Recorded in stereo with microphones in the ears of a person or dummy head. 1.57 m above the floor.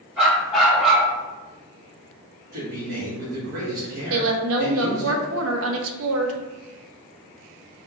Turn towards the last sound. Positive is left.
turn(degrees=-80)